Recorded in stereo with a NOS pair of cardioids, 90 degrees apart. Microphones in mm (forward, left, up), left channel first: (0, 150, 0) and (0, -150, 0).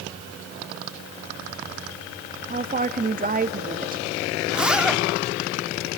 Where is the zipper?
5° right, 1.8 m.